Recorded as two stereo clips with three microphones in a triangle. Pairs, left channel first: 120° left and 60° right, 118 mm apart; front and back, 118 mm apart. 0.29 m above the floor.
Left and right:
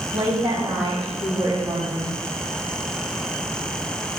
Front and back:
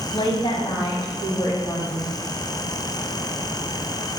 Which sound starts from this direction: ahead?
A woman speaking, at 0.1 s.